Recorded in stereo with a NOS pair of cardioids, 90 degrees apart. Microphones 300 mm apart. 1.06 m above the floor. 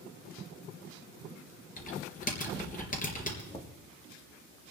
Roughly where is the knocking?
Ahead.